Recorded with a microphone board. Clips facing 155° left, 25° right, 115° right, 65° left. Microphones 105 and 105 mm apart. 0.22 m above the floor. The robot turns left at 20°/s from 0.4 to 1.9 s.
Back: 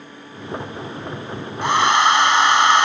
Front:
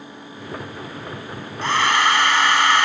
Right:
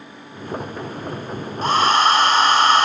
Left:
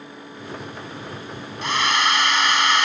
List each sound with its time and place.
1.6 s a hair dryer: 135° right; by 2.9 s 145° right